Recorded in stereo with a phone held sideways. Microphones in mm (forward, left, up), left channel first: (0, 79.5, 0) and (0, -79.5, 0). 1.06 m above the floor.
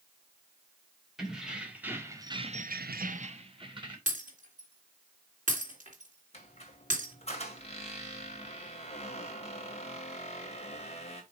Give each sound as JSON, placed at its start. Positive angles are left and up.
{"t": 1.2, "sound": "keys jangling", "side_deg": 0, "distance_m": 2.5}
{"t": 4.1, "sound": "breaking glass", "side_deg": -50, "distance_m": 2.5}
{"t": 6.3, "sound": "a squeak", "side_deg": 40, "distance_m": 2.0}